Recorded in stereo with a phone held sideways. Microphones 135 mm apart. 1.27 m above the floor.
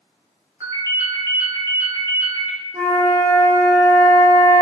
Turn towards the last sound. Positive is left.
turn(degrees=-25)  # may be behind; listen again after turning